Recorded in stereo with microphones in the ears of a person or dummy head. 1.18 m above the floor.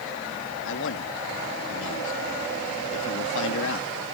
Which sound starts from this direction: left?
A man speaking, at 0.7 s.